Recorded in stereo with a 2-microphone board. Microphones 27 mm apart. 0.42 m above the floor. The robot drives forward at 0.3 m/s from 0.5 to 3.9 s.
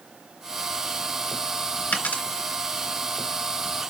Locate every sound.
1.9 s a dropped coin: 80° left, 2.5 m